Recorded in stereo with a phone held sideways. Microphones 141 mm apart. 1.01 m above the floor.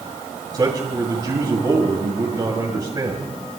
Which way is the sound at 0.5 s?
30° right (ahead or behind).